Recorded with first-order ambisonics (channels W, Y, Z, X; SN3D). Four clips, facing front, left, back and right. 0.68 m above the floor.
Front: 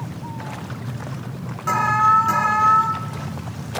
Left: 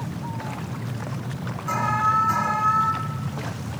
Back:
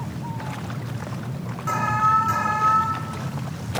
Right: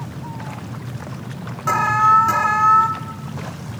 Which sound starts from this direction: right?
An alarm, at 1.7 s.